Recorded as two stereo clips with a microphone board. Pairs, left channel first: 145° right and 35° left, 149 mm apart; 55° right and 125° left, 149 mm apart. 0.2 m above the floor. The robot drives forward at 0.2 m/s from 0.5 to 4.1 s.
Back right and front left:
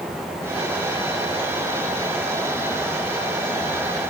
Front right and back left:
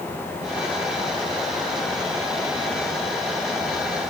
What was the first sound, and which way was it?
Only background noise.